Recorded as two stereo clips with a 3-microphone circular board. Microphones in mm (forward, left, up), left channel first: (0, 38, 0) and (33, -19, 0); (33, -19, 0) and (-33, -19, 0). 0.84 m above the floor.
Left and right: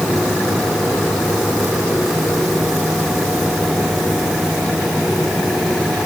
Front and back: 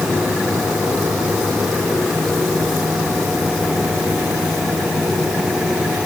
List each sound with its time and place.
Only background noise.